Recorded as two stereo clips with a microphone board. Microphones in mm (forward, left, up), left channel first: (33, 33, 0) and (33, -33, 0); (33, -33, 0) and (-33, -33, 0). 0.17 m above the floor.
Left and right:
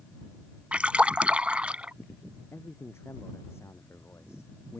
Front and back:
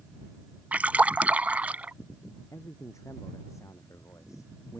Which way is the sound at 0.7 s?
140° right.